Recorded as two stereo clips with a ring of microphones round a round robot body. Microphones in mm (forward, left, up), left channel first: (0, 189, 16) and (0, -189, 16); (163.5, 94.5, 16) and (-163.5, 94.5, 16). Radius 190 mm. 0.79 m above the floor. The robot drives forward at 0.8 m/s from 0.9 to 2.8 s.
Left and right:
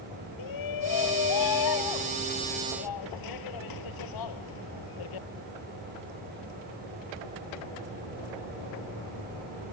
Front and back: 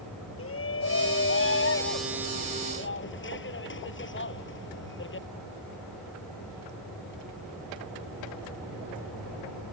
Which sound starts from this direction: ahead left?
A shout, at 0.4 s.